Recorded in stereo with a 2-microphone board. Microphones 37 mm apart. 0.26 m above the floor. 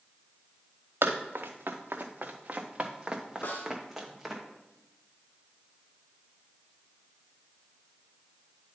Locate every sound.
1.0 s running footsteps: 80° right, 1.4 m; by 4.4 s centre (ahead or behind), 2 m
3.4 s a snare drum: 65° left (ahead or behind), 1.5 m